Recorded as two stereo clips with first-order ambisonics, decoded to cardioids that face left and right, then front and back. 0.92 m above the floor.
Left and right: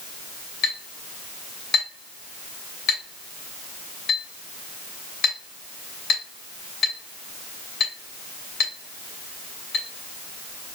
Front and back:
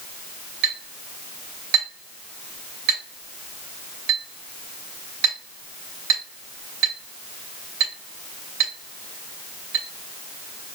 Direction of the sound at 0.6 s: 150° left.